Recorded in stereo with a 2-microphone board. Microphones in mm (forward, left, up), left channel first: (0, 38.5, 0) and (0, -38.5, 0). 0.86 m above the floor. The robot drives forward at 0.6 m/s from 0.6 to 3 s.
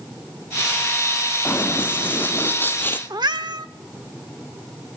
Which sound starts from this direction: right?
A cat meowing, at 3.1 s.